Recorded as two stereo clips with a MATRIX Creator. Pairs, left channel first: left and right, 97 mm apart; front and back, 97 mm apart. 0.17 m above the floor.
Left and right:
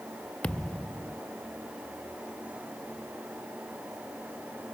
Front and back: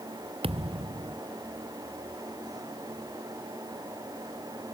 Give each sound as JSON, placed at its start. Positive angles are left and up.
{"t": 0.4, "sound": "a thud", "azimuth_deg": 170}